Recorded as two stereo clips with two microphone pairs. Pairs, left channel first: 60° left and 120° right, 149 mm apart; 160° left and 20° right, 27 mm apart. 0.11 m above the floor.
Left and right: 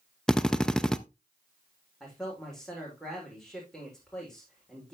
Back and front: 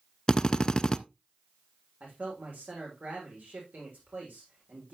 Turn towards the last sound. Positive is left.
turn(degrees=-30)